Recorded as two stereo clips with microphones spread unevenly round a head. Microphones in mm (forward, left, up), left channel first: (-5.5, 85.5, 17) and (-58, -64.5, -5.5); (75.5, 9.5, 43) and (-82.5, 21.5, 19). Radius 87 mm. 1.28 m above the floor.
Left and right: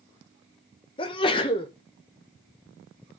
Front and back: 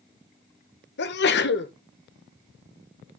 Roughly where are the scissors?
No scissors in this recording.